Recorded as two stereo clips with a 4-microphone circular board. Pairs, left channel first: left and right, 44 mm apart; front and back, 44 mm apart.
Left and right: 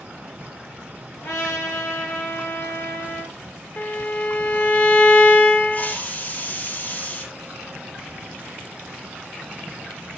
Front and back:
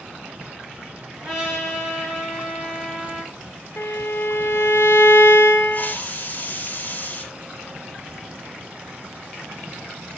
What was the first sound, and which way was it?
A trumpet, 105° left.